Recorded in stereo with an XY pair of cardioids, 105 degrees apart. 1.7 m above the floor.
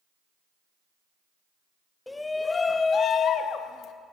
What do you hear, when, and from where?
2.1 s a shout: 15° left, 0.9 m; by 3.9 s 80° left, 1.0 m